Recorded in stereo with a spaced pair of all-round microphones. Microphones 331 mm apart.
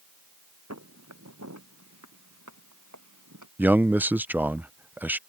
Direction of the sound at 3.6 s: 5° right (ahead or behind).